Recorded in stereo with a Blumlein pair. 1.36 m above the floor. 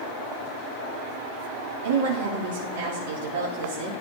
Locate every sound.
1.8 s a woman speaking: 55° right, 2.5 m